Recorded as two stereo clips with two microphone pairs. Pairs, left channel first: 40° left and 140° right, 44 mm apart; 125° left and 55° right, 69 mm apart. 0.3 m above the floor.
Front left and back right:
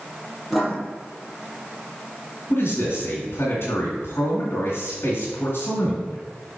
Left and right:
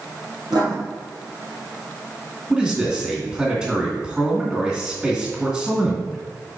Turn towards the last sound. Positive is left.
turn(degrees=25)